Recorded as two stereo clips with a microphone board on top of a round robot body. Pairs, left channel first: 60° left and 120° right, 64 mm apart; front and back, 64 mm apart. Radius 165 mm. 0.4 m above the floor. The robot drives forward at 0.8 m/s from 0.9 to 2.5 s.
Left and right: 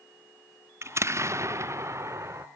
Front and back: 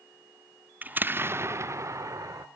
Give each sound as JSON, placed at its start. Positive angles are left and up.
{"t": 0.8, "sound": "an explosion", "azimuth_deg": -130}